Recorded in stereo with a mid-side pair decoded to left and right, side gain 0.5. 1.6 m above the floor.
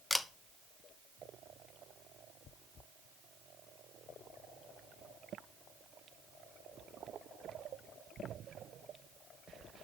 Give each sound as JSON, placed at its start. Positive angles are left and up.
{"t": 0.1, "sound": "a camera shutter", "azimuth_deg": 15, "distance_m": 0.9}